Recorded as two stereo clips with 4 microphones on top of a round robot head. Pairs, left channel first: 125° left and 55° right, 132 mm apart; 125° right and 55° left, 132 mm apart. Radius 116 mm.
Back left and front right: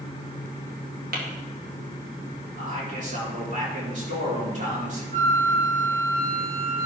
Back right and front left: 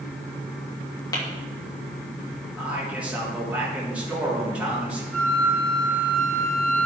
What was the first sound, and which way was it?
Tapping, 60° right.